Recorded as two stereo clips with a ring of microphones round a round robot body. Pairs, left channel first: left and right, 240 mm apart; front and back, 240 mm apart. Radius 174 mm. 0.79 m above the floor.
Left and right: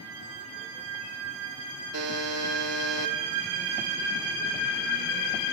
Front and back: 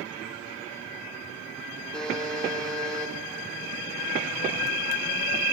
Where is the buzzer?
90° right, 2.5 m.